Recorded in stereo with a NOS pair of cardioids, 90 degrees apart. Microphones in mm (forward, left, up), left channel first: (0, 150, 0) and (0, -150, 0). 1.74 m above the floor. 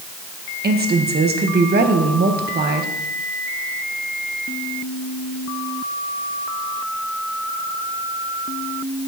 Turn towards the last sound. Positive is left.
turn(degrees=-35)